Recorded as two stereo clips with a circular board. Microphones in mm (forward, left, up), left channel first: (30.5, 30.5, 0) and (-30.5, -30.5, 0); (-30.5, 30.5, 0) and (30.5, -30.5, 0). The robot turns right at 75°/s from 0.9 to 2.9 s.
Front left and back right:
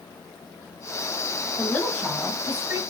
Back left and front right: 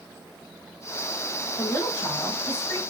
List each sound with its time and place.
1.6 s a woman speaking: 90° left, 1.4 m; by 2.8 s 175° right, 1.4 m